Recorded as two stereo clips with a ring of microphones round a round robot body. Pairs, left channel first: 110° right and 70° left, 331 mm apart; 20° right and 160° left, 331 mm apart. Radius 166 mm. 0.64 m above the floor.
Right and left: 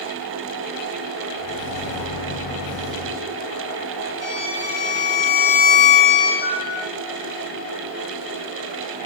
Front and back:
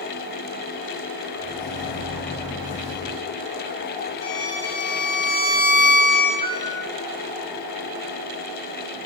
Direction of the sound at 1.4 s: 85° right.